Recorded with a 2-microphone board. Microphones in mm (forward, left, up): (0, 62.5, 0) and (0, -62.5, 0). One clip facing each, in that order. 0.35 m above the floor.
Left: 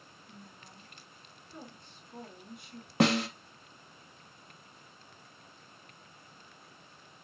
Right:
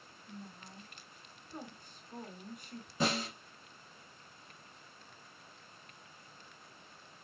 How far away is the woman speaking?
About 4 m.